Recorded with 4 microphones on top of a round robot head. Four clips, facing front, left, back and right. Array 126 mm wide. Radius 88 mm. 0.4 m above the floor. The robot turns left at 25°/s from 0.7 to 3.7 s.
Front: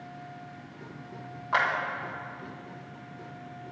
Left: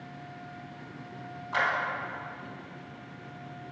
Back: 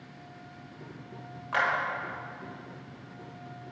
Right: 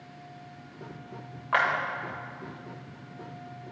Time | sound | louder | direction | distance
1.5 | a clap | right 4 dB, front 2 dB | 65° right | 1.6 m